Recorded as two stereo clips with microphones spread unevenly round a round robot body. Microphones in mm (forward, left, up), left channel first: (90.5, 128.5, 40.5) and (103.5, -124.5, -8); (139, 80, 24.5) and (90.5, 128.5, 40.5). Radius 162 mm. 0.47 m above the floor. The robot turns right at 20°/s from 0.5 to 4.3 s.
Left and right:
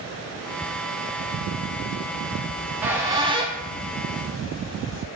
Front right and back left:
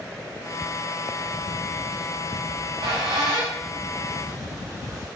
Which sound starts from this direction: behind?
A squeak, at 2.5 s.